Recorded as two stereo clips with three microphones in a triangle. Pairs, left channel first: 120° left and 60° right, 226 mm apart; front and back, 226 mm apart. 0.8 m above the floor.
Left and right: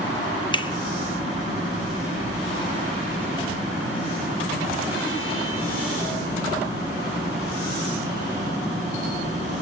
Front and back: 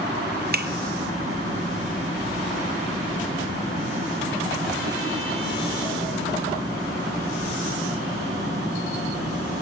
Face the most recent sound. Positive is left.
turn(degrees=-175)